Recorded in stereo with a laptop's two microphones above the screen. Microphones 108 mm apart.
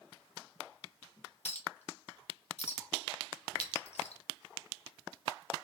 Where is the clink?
80° left, 0.7 m.